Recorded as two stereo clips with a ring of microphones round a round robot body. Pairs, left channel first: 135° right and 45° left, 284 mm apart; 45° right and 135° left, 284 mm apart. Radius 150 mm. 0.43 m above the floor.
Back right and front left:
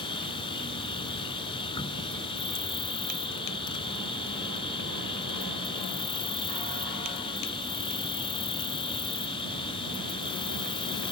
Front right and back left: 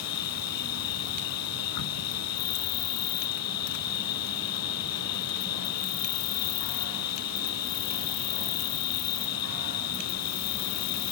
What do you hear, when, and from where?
0.0 s an insect: 60° right